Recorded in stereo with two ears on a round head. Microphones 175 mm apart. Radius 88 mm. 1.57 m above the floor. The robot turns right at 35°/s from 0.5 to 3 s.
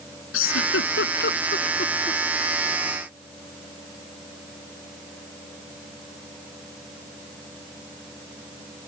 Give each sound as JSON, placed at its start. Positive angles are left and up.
{"t": 0.3, "sound": "a giggle", "side_deg": 85}